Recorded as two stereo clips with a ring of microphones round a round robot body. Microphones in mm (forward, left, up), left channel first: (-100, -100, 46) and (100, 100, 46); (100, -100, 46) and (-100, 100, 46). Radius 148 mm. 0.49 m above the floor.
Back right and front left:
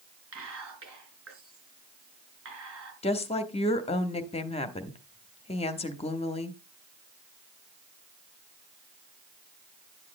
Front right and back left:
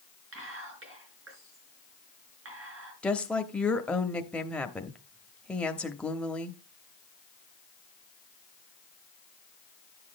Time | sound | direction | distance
0.3 | whispering | 90° left | 6 m
3.0 | a woman speaking | 125° right | 1.0 m